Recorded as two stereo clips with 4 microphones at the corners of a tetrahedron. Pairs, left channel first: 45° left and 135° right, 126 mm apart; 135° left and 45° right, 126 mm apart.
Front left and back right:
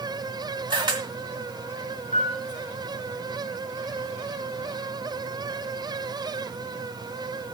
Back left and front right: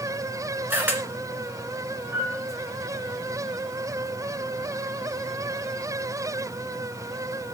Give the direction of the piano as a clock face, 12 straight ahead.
11 o'clock.